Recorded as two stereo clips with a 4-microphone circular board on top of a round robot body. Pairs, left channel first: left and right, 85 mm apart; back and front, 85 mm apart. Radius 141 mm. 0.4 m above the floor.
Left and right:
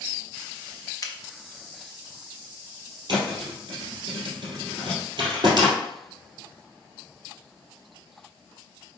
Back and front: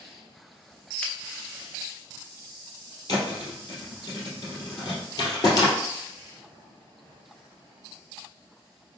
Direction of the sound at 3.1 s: 130° right.